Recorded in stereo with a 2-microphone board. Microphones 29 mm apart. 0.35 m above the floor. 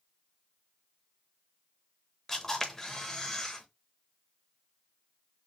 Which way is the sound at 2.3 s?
15° left (ahead or behind).